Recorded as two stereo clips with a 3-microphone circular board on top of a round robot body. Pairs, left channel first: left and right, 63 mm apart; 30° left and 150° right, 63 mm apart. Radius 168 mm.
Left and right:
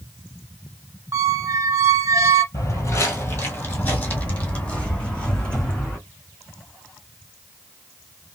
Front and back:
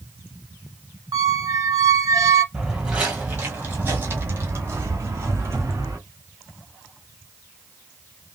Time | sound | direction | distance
1.1 | a squeak | 130° right | 1.0 m
2.5 | footsteps | 125° left | 0.8 m